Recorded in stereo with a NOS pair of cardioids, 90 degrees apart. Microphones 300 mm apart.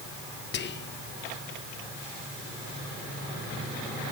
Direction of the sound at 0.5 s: 35° left.